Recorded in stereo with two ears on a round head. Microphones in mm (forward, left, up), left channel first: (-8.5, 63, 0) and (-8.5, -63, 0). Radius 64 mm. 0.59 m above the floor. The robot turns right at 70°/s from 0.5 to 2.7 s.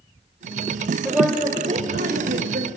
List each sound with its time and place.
1.1 s a woman speaking: straight behind, 1.9 m; by 2.7 s 65° right, 1.9 m